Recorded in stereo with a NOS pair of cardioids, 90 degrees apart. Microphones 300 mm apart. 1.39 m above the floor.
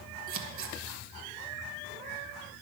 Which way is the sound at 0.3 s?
45° right.